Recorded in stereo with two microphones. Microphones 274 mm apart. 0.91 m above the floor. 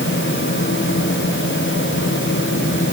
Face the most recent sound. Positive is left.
No sound to turn to.